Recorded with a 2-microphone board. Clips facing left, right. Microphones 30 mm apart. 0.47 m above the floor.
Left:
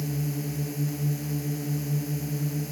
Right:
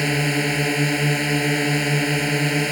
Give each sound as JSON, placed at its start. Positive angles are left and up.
{"t": 0.0, "sound": "a drone", "side_deg": -75}